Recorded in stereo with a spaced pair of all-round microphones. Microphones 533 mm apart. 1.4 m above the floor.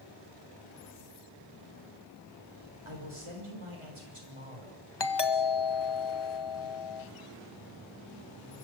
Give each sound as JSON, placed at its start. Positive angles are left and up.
{"t": 2.9, "sound": "a man speaking", "side_deg": -65, "distance_m": 6.5}
{"t": 5.0, "sound": "a doorbell", "side_deg": 50, "distance_m": 1.3}